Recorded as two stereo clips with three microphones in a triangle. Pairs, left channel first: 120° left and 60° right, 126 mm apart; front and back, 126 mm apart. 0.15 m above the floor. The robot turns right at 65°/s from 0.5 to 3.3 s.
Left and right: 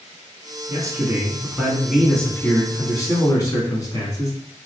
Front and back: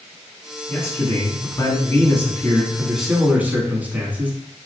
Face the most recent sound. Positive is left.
turn(degrees=120)